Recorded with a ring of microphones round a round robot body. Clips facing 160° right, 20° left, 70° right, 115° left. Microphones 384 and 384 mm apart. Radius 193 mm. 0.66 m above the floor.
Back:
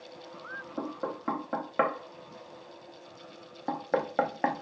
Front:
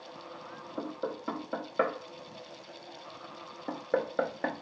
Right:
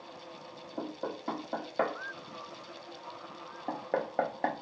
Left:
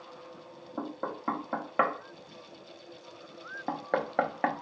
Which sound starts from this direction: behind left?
Knocking, at 0.8 s.